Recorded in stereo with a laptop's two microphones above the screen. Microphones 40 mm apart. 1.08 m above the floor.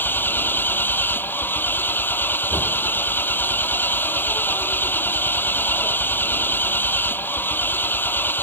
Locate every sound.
0.0 s an engine running: 60° left (ahead or behind)